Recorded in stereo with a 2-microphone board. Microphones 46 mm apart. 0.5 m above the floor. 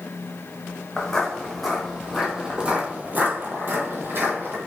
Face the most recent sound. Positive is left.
turn(degrees=-50)  # may be behind; listen again after turning